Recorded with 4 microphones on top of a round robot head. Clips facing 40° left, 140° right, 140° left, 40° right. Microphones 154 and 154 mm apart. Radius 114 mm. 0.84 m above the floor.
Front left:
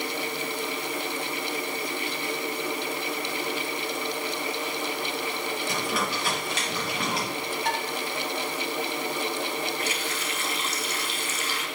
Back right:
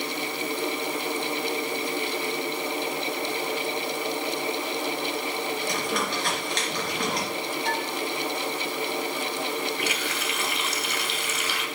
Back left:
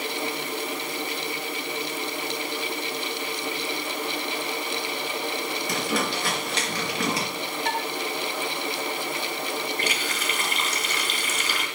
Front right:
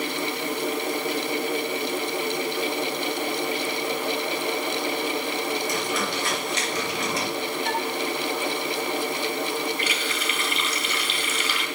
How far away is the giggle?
No giggle in this recording.